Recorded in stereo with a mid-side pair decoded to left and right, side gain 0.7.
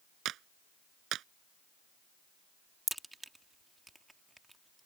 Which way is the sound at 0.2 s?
50° right.